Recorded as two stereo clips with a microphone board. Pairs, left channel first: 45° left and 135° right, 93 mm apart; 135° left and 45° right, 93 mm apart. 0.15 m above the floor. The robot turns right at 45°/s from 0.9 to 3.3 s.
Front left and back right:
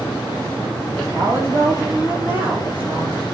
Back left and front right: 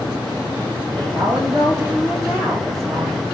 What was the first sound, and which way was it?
A woman speaking, 35° right.